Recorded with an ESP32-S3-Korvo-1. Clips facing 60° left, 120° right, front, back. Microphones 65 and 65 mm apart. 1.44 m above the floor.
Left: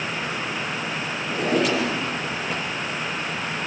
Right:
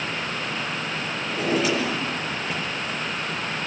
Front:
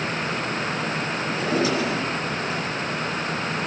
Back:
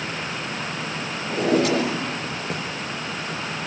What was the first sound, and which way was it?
A drawer, 150° left.